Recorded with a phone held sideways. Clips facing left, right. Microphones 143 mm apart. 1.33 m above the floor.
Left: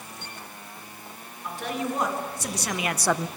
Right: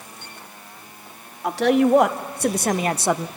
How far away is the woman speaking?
About 2.5 m.